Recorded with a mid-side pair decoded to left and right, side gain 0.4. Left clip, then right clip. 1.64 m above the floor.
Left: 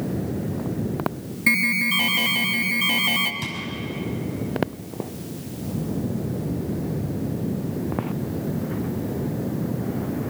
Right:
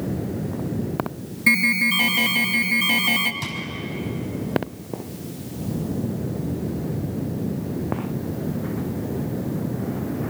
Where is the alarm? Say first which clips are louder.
Right 2 dB; straight ahead, 1.8 m.